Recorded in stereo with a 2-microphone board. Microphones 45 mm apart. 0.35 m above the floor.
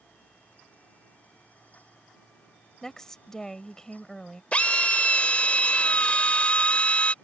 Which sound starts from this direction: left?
A drill, at 4.5 s.